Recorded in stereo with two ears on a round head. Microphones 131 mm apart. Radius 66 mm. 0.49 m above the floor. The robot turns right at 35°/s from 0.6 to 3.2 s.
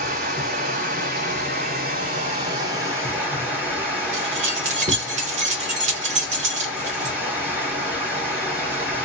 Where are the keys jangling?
50° right (ahead or behind), 0.8 m.